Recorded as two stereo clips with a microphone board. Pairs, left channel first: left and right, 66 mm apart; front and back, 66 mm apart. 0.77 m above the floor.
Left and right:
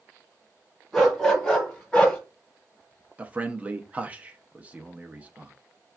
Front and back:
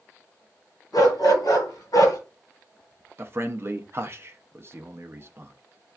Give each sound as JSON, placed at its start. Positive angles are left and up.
{"t": 0.9, "sound": "a dog barking", "azimuth_deg": 0, "distance_m": 2.0}
{"t": 3.2, "sound": "a man speaking", "azimuth_deg": -150, "distance_m": 0.6}